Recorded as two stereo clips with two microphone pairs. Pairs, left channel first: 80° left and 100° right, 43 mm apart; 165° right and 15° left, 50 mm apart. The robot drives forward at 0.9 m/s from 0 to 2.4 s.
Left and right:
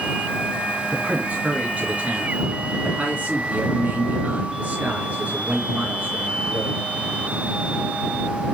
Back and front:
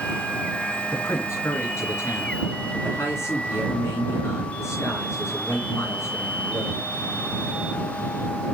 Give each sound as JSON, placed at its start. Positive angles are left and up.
{"t": 0.9, "sound": "a man speaking", "azimuth_deg": -150, "distance_m": 3.5}